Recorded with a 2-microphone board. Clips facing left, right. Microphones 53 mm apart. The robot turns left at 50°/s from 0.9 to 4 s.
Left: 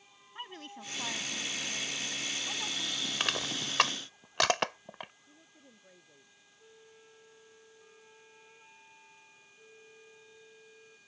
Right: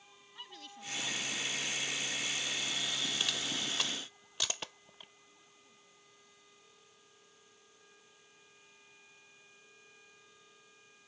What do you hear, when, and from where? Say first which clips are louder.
0.3 s a woman speaking: left 6 dB; 145° left; by 3.1 s 35° left
3.2 s crushing: left 3 dB; 50° left (ahead or behind); by 5.1 s 70° left (ahead or behind)
5.2 s a woman speaking: left 4 dB; 80° left
6.6 s a flute: left 6 dB; 55° left (ahead or behind)